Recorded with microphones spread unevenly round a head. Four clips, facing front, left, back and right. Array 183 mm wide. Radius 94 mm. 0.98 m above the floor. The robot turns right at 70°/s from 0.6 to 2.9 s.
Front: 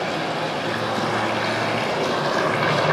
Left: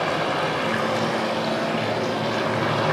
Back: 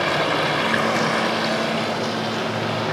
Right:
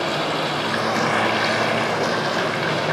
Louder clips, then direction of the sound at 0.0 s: Even, back 3 dB; 160° right.